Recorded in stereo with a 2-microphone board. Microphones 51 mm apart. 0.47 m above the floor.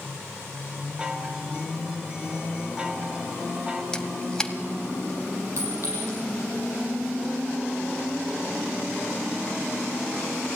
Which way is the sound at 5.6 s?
70° right (ahead or behind).